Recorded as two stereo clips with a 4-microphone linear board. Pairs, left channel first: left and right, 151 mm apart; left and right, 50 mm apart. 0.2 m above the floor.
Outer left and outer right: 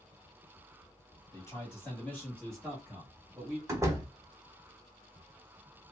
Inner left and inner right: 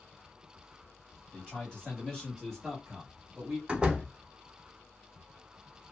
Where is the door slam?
20° right (ahead or behind), 0.7 m.